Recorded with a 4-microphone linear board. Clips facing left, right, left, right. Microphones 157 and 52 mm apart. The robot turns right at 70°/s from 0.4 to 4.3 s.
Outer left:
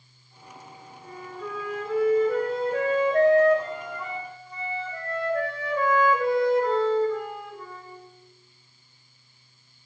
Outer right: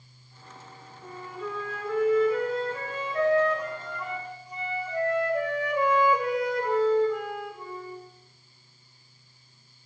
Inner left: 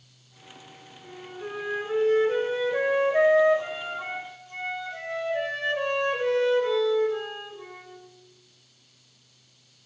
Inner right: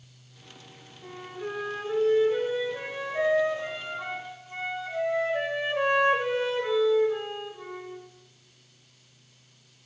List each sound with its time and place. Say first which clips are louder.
1.0 s a flute: outer right 1 dB, inner right 2 dB; 35° right, 3 m; by 8.0 s 165° right, 3 m